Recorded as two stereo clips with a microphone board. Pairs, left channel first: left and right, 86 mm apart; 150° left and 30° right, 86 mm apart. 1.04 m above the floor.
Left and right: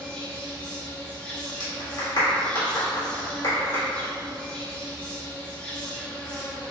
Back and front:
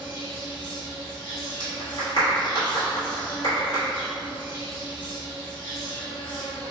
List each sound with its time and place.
0.0 s an insect: 165° left, 1.0 m
1.6 s a clap: 125° left, 1.6 m